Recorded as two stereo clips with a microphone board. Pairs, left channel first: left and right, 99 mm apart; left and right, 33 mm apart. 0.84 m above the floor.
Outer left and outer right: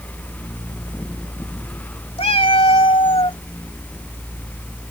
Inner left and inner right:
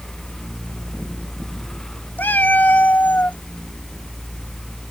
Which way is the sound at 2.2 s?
70° left (ahead or behind).